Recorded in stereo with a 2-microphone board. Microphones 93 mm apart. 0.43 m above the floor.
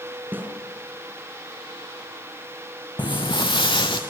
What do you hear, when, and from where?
0.3 s a snare drum: 20° right (ahead or behind), 4.5 m
3.0 s footsteps: 55° left (ahead or behind), 1.4 m; by 4.0 s 60° left (ahead or behind), 2.5 m